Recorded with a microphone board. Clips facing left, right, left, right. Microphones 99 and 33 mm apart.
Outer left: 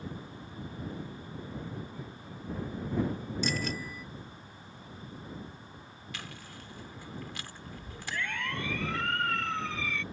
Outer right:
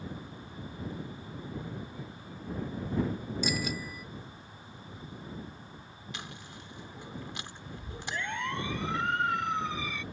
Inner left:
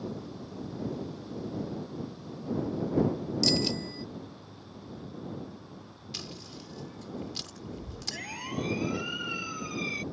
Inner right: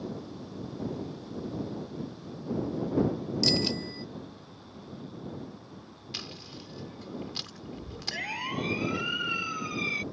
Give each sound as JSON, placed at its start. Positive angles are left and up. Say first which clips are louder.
{"t": 3.4, "sound": "a bicycle bell", "louder": "even, even", "side_deg": -10}
{"t": 6.1, "sound": "chewing", "louder": "even, inner right 1 dB", "side_deg": -20}
{"t": 8.1, "sound": "a siren", "louder": "outer right 1 dB, inner right 4 dB", "side_deg": -25}